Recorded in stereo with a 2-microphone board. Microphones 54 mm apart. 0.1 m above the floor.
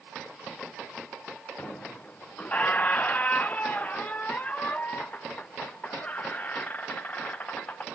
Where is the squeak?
30° left (ahead or behind), 0.5 m.